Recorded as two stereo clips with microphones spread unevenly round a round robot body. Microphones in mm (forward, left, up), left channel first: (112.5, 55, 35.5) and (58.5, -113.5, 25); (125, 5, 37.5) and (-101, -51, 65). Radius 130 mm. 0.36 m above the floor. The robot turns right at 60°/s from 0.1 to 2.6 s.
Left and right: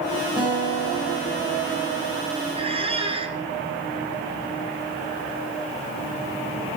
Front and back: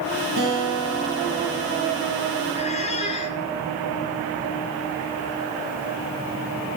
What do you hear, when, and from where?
0.4 s a guitar: 175° left, 5.5 m; by 2.3 s 70° right, 5.5 m
2.5 s a squeak: 50° right, 1.9 m